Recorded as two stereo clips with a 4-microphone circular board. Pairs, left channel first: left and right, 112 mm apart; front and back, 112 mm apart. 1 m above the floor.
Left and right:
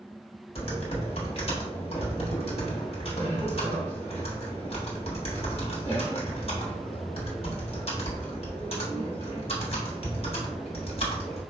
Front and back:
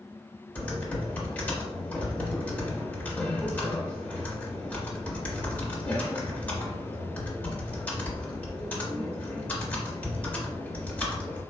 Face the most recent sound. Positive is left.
turn(degrees=70)